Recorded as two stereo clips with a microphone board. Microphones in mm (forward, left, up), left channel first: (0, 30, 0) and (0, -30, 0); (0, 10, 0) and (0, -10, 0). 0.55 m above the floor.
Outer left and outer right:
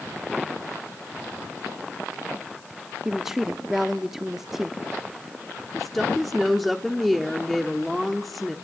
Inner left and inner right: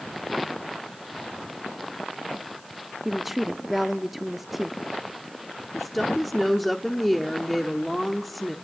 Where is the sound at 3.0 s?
5° right (ahead or behind), 0.7 m.